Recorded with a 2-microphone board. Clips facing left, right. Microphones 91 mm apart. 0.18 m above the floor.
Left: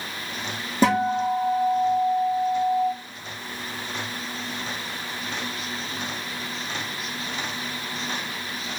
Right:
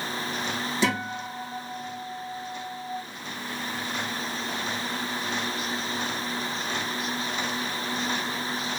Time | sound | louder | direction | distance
0.8 | a guitar | left 10 dB | 45° left (ahead or behind) | 1.6 m